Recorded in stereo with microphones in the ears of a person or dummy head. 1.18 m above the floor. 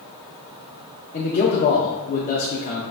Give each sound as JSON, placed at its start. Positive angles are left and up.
{"t": 1.1, "sound": "a man speaking", "side_deg": 45, "distance_m": 0.7}